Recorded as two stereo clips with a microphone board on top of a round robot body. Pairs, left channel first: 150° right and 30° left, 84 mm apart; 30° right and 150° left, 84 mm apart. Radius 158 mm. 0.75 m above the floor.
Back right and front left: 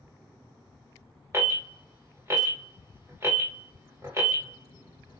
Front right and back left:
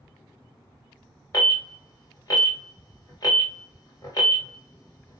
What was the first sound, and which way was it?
An alarm, 15° right.